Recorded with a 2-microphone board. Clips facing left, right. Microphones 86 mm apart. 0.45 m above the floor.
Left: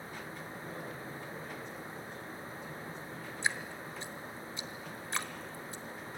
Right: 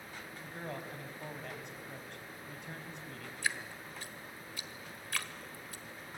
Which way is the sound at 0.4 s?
65° right (ahead or behind).